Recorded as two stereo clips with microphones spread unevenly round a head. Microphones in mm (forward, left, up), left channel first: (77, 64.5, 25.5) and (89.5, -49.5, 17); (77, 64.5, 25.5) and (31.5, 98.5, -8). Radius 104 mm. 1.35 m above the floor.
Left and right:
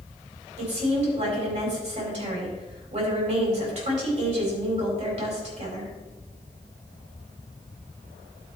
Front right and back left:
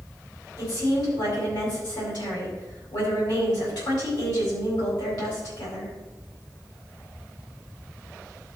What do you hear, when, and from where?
0.6 s a woman speaking: 65° right, 4.5 m